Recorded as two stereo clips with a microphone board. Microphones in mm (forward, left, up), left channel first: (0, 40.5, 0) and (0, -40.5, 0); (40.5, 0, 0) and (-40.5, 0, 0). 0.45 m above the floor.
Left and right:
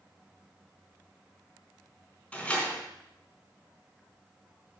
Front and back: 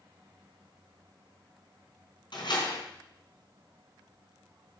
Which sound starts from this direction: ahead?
A door slam, at 2.3 s.